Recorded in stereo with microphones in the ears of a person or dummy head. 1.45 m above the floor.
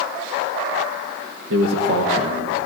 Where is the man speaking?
80° right, 1.5 m.